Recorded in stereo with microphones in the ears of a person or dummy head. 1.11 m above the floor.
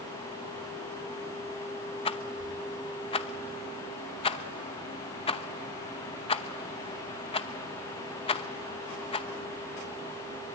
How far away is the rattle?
About 0.8 m.